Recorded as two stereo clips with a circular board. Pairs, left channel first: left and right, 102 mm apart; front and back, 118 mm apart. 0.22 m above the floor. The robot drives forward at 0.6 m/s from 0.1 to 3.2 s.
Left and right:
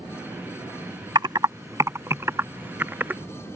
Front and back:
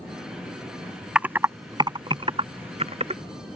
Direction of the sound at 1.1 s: 100° right.